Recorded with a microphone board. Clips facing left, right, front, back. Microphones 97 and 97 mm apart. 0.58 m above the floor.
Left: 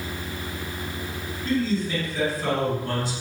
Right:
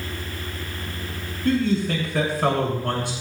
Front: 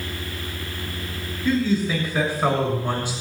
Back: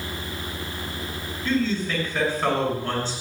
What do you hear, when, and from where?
1.4 s a man speaking: 75° right, 6.5 m